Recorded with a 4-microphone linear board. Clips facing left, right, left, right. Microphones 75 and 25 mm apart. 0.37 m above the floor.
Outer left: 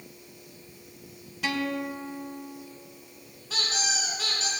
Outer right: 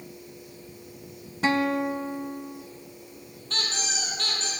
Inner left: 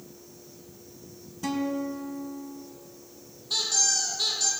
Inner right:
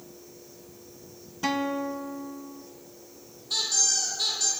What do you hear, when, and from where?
1.4 s a guitar: 40° right (ahead or behind), 0.8 m
3.5 s a squeak: 5° left (ahead or behind), 3 m